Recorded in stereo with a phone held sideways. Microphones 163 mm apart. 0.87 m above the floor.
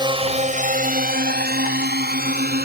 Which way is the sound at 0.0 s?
30° right (ahead or behind).